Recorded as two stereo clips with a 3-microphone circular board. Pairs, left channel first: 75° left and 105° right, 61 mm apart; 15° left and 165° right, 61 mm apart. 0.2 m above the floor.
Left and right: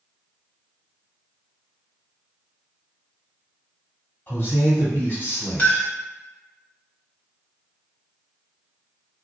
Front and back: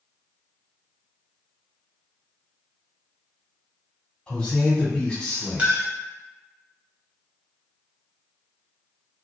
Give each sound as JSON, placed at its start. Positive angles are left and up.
{"t": 4.3, "sound": "a man speaking", "azimuth_deg": 70, "distance_m": 1.3}
{"t": 5.6, "sound": "a clink", "azimuth_deg": 135, "distance_m": 0.8}